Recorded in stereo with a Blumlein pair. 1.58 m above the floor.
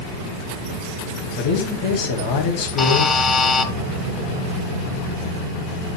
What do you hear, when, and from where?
1.4 s a man speaking: 50° left, 3.5 m
2.8 s a buzzer: 25° left, 1.1 m